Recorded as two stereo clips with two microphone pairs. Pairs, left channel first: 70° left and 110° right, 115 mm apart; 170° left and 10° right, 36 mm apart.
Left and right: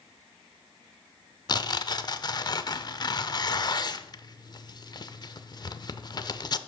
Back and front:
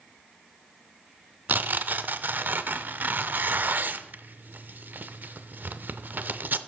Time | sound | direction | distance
1.5 | tearing paper | 20° left | 0.5 m